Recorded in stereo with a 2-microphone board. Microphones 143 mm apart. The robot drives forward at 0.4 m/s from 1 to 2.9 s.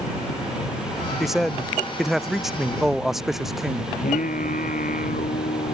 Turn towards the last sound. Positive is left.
turn(degrees=75)  # may be behind; listen again after turning